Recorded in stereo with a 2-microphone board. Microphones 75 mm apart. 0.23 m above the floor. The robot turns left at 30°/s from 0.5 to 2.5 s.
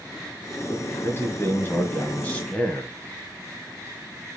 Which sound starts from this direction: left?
A man speaking, at 0.7 s.